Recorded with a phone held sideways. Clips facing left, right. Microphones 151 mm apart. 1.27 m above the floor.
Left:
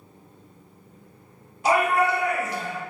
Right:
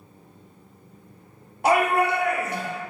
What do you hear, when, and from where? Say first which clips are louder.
1.6 s a shout: right 1 dB; 60° right (ahead or behind), 1.0 m